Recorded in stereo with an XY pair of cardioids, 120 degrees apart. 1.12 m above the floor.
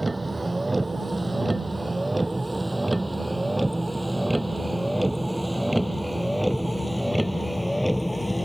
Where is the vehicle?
15° right; by 8.5 s straight ahead.